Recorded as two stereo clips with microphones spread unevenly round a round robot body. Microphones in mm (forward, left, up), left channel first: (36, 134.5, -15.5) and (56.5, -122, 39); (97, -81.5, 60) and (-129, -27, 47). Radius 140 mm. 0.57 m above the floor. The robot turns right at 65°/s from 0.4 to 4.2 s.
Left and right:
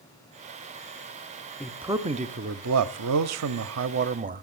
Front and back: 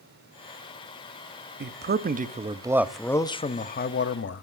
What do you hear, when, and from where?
1.6 s a man speaking: 165° left, 1.0 m; by 4.4 s 25° right, 1.0 m